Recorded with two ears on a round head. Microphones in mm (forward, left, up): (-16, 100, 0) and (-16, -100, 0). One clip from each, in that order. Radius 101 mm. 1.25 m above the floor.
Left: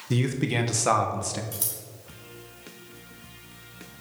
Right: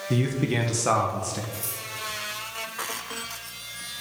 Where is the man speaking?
10° left (ahead or behind), 1.0 m.